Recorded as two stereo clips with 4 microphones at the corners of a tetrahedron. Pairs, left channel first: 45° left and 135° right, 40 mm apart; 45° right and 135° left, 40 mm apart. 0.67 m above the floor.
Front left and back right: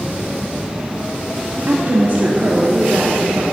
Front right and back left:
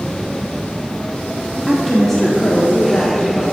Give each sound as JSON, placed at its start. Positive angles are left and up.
{"t": 1.7, "sound": "a woman speaking", "azimuth_deg": -145, "distance_m": 1.3}